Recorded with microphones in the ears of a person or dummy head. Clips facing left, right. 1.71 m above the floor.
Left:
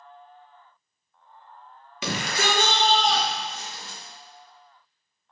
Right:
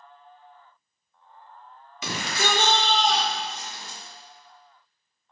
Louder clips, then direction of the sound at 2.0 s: Left 2 dB; 55° left (ahead or behind).